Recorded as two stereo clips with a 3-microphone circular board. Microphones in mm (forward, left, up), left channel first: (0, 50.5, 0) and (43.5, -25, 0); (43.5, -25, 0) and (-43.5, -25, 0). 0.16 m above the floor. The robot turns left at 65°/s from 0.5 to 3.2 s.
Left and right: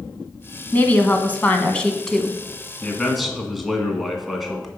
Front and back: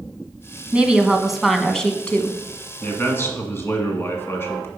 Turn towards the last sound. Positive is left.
turn(degrees=30)